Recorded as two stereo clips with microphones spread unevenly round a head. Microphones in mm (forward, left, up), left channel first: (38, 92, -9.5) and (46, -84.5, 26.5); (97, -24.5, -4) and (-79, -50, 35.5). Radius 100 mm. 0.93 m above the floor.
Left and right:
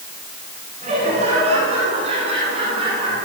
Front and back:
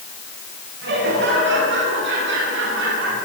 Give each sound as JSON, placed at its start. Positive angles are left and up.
{"t": 0.8, "sound": "laughter", "azimuth_deg": -150, "distance_m": 8.5}